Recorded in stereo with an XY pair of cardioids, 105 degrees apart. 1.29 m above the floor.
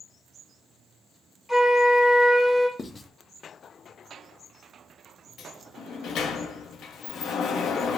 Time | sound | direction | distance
1.5 | a flute | 10° left | 1.8 m
2.8 | writing | 30° left | 0.7 m
5.4 | a sliding door | 70° left | 0.6 m